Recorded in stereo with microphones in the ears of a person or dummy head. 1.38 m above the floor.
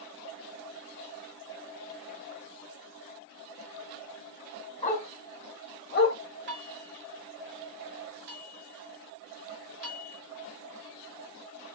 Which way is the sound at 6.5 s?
65° right (ahead or behind).